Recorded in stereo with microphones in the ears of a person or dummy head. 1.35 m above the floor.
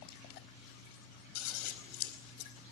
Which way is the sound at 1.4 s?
80° left.